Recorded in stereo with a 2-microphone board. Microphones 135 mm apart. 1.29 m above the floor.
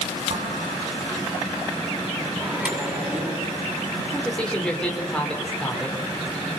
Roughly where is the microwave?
Centre.